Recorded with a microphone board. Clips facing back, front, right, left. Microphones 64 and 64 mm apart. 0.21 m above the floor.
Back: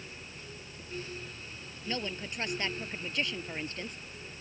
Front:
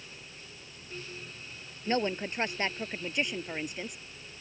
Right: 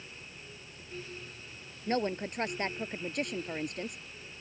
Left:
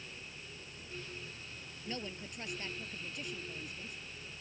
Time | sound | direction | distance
1.9 | a woman speaking | 55° right | ?